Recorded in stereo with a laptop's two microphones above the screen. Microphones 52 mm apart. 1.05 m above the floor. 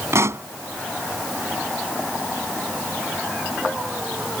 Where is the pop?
65° right (ahead or behind).